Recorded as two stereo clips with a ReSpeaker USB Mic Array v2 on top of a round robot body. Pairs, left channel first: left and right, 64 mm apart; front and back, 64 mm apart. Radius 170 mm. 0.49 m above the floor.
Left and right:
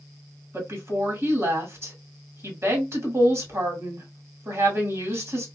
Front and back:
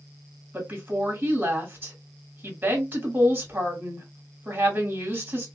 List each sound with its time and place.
0.5 s a woman speaking: 125° right, 1.7 m